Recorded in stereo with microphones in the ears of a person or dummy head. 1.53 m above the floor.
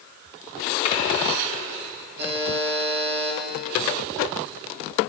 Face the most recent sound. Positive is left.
turn(degrees=-55)  # may be behind; listen again after turning